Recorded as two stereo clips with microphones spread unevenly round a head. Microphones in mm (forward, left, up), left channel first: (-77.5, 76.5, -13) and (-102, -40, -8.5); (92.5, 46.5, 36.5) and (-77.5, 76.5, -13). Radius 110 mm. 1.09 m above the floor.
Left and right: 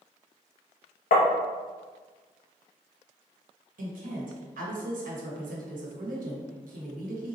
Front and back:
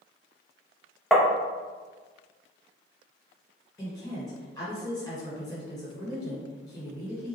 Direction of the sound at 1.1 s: 80° left.